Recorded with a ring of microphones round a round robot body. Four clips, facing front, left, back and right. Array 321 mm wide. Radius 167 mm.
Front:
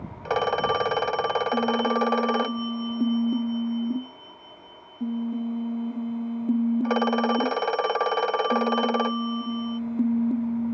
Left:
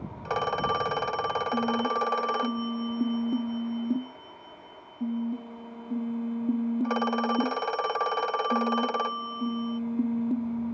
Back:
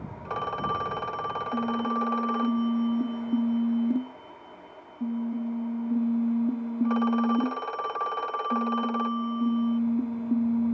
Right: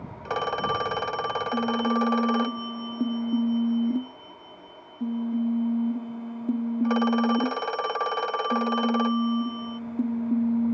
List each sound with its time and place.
0.2 s a phone ringing: 5° right